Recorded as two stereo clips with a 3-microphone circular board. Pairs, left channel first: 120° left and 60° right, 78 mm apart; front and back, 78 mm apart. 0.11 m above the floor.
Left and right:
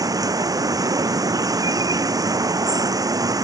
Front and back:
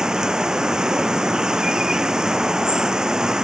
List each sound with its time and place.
0.0 s running water: 100° right